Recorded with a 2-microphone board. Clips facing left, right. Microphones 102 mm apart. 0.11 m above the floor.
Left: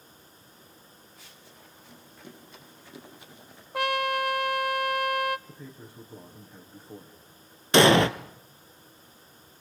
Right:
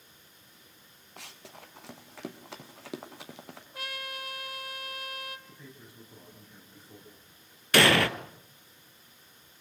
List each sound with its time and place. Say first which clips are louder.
1.2 s running footsteps: right 9 dB; 75° right (ahead or behind), 3 m; by 3.6 s 80° right, 4.5 m
3.7 s a trumpet: left 16 dB; 70° left (ahead or behind), 0.5 m
5.5 s a man speaking: left 5 dB; 35° left (ahead or behind), 5.5 m
7.7 s an explosion: left 5 dB; 20° left (ahead or behind), 1.1 m